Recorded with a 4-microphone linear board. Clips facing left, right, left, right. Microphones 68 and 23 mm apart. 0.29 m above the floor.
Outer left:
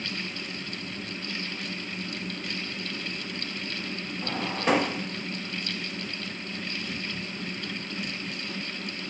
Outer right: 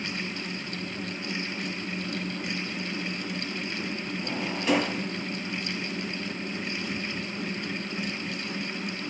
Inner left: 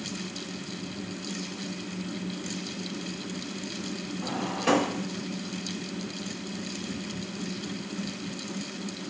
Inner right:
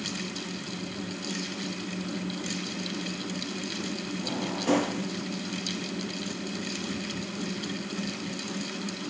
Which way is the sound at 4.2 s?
35° left (ahead or behind).